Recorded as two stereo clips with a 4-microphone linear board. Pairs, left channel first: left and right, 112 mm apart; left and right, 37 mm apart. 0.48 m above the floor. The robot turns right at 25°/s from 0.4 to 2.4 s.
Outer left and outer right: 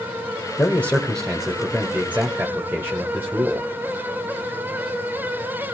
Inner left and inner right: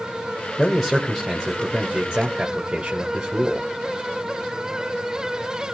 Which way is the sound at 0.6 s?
155° left.